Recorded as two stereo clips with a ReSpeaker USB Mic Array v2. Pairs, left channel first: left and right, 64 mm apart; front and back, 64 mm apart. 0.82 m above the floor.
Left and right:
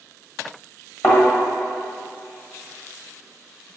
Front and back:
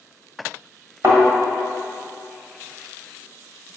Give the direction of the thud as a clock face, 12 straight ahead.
7 o'clock.